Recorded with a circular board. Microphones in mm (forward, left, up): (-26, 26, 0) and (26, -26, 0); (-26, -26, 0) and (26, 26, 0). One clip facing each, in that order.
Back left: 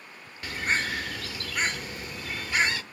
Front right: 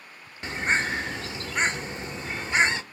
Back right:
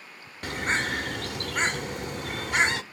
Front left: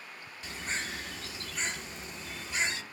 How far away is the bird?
About 0.8 m.